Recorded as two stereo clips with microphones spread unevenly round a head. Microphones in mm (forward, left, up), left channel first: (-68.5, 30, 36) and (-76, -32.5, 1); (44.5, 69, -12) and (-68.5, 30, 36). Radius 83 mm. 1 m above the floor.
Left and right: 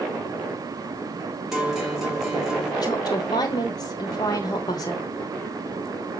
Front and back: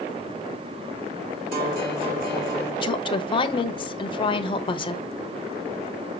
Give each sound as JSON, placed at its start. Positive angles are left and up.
{"t": 1.5, "sound": "a guitar", "azimuth_deg": -175, "distance_m": 2.5}
{"t": 2.8, "sound": "a woman speaking", "azimuth_deg": 20, "distance_m": 0.9}